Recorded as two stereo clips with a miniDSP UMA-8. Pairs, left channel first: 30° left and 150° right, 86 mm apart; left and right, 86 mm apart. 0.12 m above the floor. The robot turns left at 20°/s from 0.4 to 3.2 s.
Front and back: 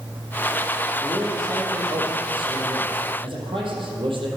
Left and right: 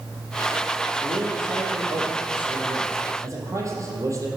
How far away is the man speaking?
About 4 m.